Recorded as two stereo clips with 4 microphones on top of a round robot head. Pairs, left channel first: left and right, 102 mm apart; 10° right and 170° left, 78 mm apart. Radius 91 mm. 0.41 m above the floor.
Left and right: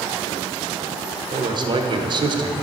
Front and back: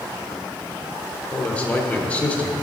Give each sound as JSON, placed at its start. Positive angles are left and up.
{"t": 1.3, "sound": "a man speaking", "azimuth_deg": -75, "distance_m": 1.1}